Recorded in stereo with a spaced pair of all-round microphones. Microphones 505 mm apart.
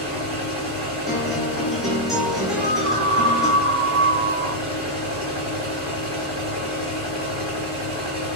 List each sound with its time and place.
0.0 s a machine running: 10° right (ahead or behind), 3 m
1.1 s a guitar: centre (ahead or behind), 2 m
2.6 s a scream: 20° right (ahead or behind), 2.5 m